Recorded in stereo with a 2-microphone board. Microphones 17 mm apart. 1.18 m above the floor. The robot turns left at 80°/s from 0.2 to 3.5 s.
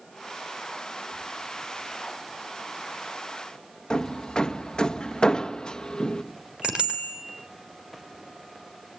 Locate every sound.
3.9 s hammering: 45° left (ahead or behind), 1.3 m
6.6 s a bicycle bell: 85° right, 3.5 m